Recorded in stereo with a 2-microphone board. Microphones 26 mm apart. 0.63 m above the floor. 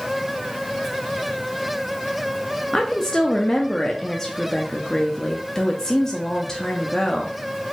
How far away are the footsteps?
I don't hear footsteps.